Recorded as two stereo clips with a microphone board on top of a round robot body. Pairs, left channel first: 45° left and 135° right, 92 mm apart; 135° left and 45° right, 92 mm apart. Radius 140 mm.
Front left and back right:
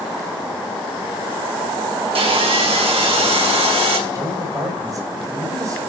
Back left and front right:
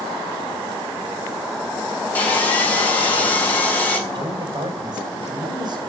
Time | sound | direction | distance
2.1 | sawing | 150° right | 5.5 m
4.1 | a man speaking | 85° right | 5 m